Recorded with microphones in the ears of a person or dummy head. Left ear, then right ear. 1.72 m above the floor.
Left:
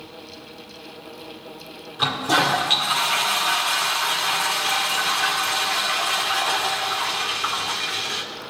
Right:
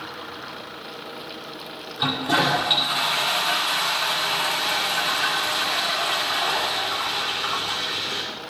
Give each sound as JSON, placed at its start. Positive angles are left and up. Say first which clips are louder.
{"t": 2.0, "sound": "a toilet flushing", "louder": "left 2 dB", "side_deg": 25, "distance_m": 1.5}